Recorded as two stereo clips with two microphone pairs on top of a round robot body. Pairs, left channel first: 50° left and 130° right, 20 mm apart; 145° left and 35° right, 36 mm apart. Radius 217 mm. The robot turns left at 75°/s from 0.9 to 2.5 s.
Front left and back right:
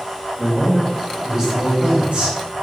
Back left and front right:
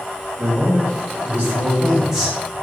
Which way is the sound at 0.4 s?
25° right.